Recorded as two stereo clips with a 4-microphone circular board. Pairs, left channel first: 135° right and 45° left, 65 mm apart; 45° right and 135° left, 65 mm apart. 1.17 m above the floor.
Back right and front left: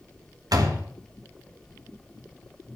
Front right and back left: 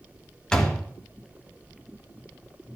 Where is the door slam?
35° left, 1.3 m.